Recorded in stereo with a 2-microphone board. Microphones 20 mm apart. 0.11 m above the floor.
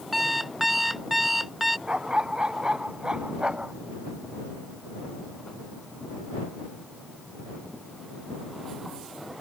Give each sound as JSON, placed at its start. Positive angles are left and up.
{"t": 0.1, "sound": "an alarm clock", "side_deg": -5}
{"t": 1.9, "sound": "a dog barking", "side_deg": -45}